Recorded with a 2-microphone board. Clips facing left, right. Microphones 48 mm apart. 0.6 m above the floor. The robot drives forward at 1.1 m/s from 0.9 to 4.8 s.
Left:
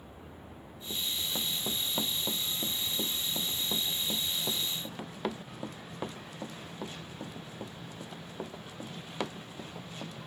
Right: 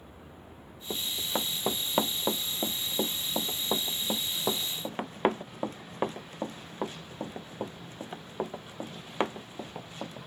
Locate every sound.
0.9 s running footsteps: 45° right (ahead or behind); by 10.2 s 30° right (ahead or behind)